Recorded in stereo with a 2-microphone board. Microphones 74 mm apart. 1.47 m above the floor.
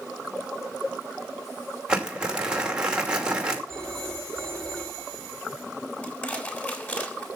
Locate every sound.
1.9 s crumpling: 10° right (ahead or behind), 2.5 m
3.7 s a phone ringing: 10° left (ahead or behind), 3.5 m
6.0 s crushing: 25° left (ahead or behind), 6.5 m